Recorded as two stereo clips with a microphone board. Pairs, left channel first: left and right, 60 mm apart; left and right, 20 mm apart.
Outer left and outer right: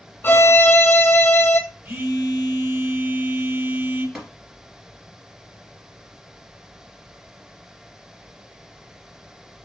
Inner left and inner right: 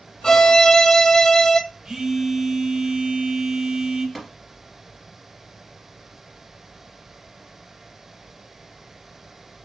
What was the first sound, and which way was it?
A violin, 35° left (ahead or behind).